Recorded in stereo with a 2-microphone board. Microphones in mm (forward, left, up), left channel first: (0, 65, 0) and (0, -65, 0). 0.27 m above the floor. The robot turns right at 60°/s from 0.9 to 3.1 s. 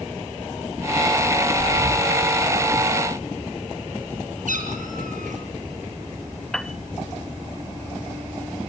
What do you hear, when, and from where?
1.6 s breathing: 135° right, 1.7 m; by 2.1 s 100° right, 1.7 m
4.5 s a cat meowing: 80° right, 3.5 m
6.5 s a piano: centre (ahead or behind), 0.6 m